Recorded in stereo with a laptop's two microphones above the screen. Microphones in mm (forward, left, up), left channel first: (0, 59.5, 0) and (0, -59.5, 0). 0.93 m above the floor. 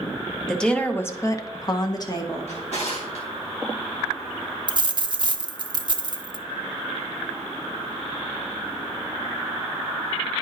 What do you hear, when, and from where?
0.5 s a woman speaking: 5° left (ahead or behind), 0.8 m; by 2.5 s 30° left (ahead or behind), 1.1 m
2.5 s a drawer: 65° left (ahead or behind), 2.5 m
4.7 s a dropped coin: 40° right (ahead or behind), 0.6 m